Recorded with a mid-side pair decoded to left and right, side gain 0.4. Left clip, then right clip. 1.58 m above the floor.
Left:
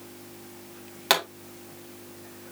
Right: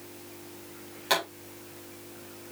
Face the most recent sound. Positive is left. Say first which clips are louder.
# left 4 dB
turn(degrees=65)